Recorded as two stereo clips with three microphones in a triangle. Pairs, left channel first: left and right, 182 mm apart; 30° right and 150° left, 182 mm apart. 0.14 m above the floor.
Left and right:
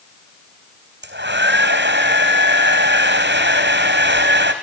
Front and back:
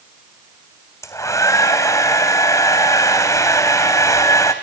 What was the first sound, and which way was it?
A hair dryer, 105° right.